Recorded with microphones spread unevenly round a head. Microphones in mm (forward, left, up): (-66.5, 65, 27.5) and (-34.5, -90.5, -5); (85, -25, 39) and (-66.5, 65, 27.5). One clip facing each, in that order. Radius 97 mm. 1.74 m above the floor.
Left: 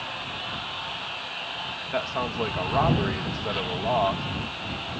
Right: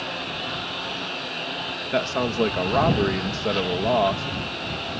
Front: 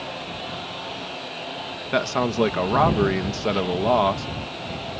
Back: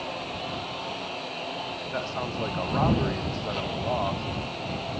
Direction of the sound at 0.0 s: 120° right.